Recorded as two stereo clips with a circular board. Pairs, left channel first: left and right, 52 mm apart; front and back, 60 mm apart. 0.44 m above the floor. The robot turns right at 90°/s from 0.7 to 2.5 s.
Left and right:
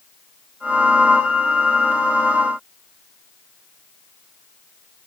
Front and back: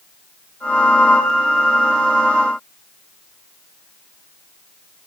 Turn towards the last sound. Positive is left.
No sound to turn to.